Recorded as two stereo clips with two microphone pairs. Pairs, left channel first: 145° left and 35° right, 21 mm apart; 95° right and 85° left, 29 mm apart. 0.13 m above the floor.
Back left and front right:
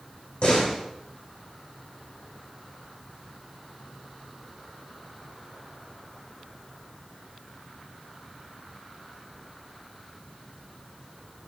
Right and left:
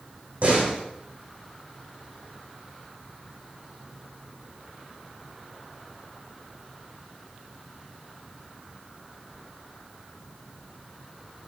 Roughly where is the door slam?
Behind left.